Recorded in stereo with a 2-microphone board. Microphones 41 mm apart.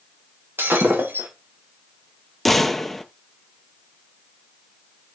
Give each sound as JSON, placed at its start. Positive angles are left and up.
{"t": 0.6, "sound": "breaking glass", "side_deg": -70, "distance_m": 5.0}
{"t": 2.5, "sound": "a gunshot", "side_deg": 5, "distance_m": 0.8}